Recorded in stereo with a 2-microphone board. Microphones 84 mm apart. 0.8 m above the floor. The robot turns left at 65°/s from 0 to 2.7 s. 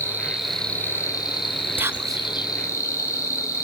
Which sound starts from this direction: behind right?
An insect, at 0.0 s.